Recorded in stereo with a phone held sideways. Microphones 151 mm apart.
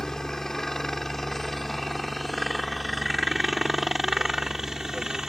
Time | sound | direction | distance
0.0 | a helicopter | 5° left (ahead or behind) | ?